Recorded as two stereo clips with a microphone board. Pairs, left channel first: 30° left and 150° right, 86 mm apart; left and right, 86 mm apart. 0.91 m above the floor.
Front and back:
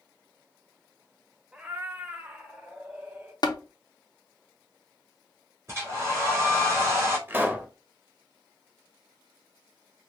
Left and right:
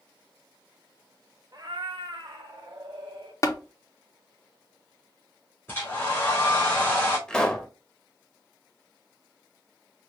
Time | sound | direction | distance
1.5 | a cat meowing | 80° right | 0.6 m
3.4 | tapping | 50° left | 0.5 m
5.7 | a hair dryer | 150° left | 2.5 m
7.3 | a pop | 165° left | 0.7 m